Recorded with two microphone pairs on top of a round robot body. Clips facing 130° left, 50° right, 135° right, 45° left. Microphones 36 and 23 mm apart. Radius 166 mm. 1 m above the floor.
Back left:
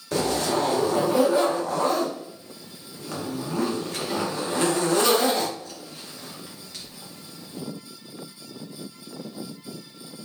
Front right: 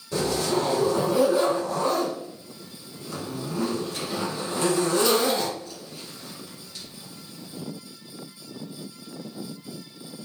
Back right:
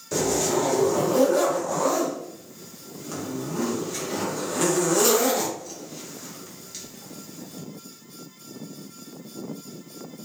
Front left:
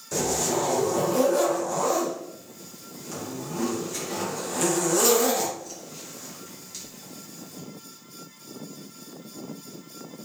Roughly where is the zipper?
Behind left.